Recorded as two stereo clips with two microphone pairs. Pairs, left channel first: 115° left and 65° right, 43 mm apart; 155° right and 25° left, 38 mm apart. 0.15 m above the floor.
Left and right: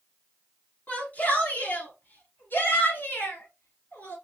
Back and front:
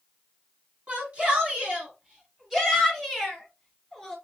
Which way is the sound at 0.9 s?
75° left.